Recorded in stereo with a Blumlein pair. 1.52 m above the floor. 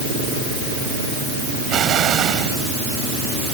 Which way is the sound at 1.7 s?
30° right.